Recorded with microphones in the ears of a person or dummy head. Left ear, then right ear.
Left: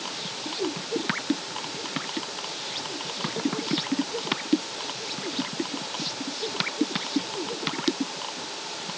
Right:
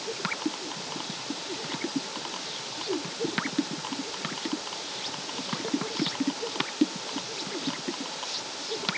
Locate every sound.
Only background noise.